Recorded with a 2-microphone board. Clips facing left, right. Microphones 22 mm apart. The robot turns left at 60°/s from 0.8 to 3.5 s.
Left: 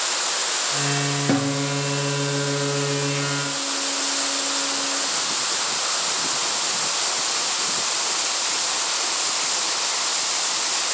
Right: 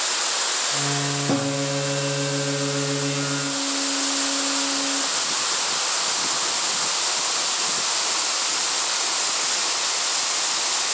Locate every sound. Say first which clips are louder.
1.3 s a guitar: left 1 dB; 45° left, 2 m; by 5.0 s 90° right, 2 m